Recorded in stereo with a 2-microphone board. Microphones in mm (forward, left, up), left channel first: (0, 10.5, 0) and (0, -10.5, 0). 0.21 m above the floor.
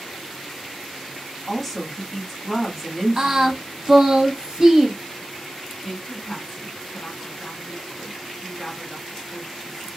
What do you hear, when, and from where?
1.5 s a woman speaking: 15° left (ahead or behind), 1.3 m
3.2 s singing: 30° right (ahead or behind), 0.8 m
5.8 s a woman speaking: 30° left (ahead or behind), 2.0 m